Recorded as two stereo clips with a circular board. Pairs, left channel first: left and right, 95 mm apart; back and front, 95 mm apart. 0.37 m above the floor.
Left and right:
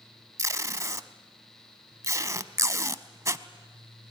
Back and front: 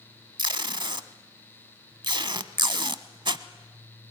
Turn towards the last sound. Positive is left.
turn(degrees=-35)